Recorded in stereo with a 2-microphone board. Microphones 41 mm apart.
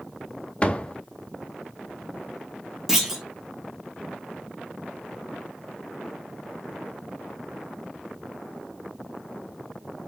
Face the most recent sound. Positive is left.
turn(degrees=-10)  # may be behind; listen again after turning